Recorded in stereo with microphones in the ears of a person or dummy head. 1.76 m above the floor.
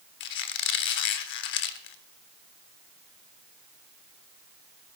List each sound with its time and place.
0.2 s a squeak: 50° left (ahead or behind), 1.1 m